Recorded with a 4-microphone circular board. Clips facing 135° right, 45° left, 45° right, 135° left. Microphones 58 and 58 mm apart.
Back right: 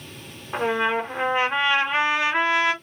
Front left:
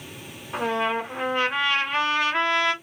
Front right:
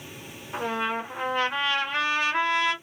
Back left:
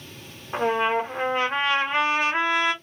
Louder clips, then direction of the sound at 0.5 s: Back right 2 dB, back left 6 dB; 175° left.